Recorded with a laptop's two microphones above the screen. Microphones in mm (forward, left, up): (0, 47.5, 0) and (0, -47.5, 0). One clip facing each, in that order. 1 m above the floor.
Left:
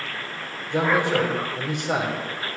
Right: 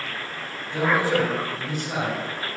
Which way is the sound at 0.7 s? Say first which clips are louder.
Left 1 dB; 75° left (ahead or behind).